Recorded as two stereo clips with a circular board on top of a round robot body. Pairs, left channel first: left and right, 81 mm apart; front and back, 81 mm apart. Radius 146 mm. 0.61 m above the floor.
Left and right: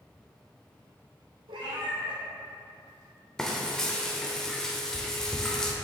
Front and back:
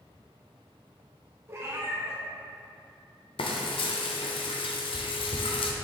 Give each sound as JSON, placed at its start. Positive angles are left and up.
{"t": 1.5, "sound": "a cat meowing", "azimuth_deg": -120, "distance_m": 0.9}
{"t": 3.4, "sound": "frying", "azimuth_deg": 5, "distance_m": 0.9}